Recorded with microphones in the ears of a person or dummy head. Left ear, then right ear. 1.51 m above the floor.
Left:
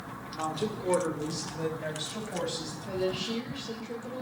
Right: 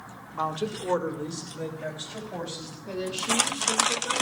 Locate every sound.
0.3 s a woman speaking: 40° right (ahead or behind), 1.1 m; by 2.8 s 20° right (ahead or behind), 4 m
2.9 s a woman speaking: 55° right (ahead or behind), 1.7 m